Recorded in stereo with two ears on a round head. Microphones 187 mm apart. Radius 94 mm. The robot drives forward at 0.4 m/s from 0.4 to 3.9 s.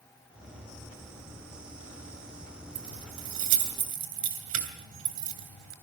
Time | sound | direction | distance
2.8 | keys jangling | 80° right | 3 m